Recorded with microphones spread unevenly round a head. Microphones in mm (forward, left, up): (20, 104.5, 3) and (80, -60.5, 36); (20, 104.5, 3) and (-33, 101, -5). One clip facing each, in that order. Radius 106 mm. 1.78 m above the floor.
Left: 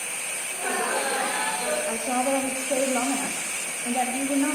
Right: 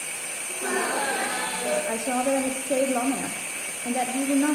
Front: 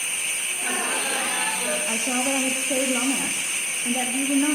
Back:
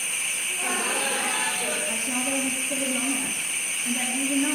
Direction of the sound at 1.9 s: 20° right.